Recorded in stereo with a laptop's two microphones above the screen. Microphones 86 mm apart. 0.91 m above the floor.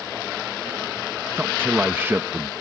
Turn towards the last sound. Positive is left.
turn(degrees=-25)  # may be behind; listen again after turning